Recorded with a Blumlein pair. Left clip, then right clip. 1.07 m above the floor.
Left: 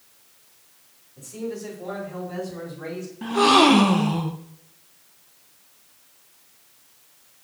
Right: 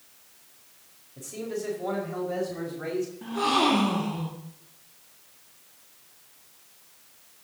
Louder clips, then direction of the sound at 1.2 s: Left 1 dB; 20° right.